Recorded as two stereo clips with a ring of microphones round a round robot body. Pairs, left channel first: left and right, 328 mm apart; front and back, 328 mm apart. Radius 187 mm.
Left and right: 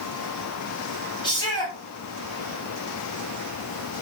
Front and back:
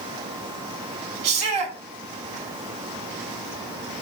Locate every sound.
1.2 s a shout: 170° left, 5.5 m